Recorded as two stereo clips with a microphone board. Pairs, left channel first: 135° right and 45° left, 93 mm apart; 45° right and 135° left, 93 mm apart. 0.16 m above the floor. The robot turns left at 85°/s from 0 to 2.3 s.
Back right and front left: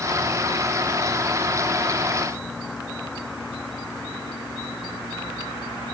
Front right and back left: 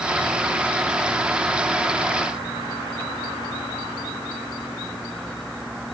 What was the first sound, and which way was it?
Only background noise.